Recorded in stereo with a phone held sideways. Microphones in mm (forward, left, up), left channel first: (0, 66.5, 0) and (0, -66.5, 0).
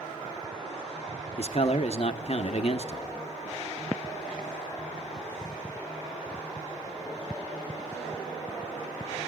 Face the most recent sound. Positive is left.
turn(degrees=50)  # may be behind; listen again after turning